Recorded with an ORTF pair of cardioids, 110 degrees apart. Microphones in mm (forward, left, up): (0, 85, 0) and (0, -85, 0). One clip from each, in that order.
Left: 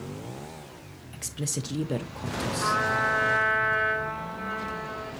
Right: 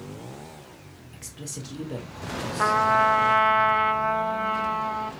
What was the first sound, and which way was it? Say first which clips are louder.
A woman speaking: left 6 dB; 25° left.